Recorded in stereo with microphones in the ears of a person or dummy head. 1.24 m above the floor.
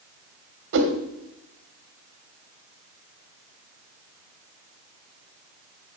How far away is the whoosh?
About 1.2 m.